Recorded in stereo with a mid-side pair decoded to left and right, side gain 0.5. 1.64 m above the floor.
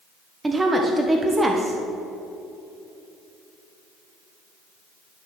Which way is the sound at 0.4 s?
20° right.